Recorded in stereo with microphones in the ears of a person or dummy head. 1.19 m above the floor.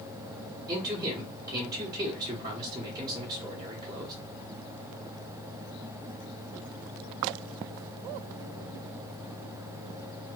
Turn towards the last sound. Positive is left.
turn(degrees=-20)  # may be behind; listen again after turning